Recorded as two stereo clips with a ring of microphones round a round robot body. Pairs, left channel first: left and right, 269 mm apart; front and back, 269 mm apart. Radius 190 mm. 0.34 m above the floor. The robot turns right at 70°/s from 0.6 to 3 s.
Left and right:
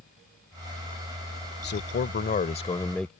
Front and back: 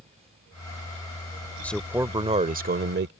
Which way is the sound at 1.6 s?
80° left.